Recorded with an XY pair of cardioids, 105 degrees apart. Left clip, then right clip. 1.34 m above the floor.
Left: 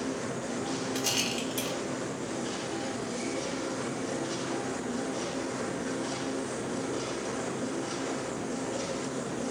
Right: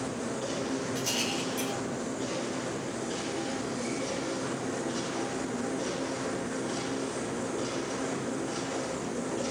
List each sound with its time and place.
0.9 s a rattle: 50° left, 1.8 m